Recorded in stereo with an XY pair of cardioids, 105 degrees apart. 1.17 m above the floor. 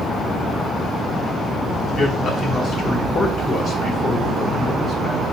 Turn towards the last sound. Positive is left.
turn(degrees=60)